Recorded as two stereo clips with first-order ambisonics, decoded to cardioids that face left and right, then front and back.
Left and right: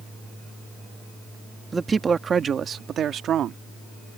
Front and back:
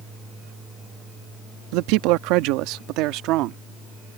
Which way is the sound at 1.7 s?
170° right.